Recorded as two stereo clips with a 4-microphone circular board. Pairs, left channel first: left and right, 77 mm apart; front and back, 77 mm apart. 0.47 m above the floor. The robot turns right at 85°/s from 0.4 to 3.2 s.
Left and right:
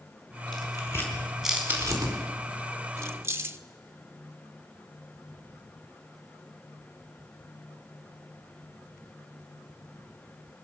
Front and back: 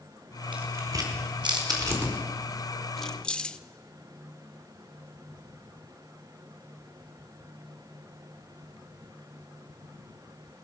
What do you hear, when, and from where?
0.5 s tearing paper: 105° left, 5 m; by 2.2 s 110° right, 5 m
3.0 s keys jangling: 85° right, 0.7 m; by 3.6 s 65° right, 0.7 m